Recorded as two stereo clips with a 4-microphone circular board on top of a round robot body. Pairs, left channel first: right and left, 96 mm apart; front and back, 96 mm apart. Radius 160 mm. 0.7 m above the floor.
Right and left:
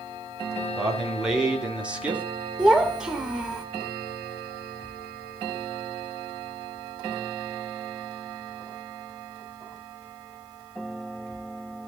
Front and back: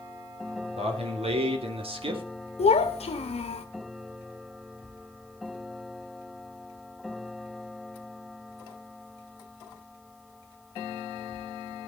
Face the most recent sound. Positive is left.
turn(degrees=0)